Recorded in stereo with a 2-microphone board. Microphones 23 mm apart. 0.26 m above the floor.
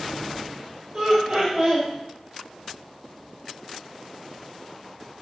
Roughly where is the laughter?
Right.